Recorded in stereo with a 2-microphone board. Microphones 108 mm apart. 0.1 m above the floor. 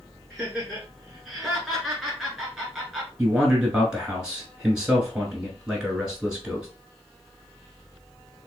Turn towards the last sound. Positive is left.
turn(degrees=-10)  # may be behind; listen again after turning